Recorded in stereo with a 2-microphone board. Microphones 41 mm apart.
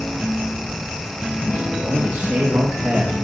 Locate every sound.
1.6 s a man speaking: 80° right, 2.5 m; by 3.1 s 60° right (ahead or behind), 1.4 m